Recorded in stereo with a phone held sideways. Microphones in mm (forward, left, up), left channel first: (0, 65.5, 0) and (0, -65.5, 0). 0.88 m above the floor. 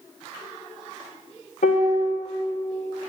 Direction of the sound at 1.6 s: 85° left.